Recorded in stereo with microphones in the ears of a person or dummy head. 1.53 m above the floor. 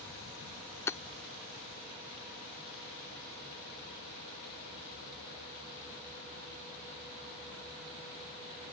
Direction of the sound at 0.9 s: 15° left (ahead or behind).